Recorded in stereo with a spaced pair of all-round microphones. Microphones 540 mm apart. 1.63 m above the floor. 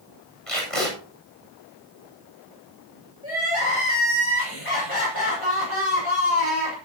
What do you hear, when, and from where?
0.5 s tape being pulled: 80° left, 8.5 m
3.2 s crying: 70° left (ahead or behind), 7 m